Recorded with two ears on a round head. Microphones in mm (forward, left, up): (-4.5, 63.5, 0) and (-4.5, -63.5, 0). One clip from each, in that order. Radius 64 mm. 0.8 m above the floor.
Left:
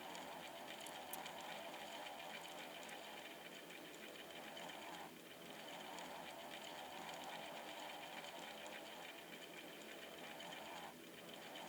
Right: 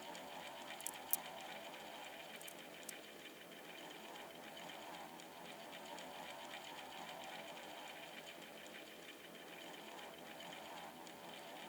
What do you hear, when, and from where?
0.8 s a crack: 70° right (ahead or behind)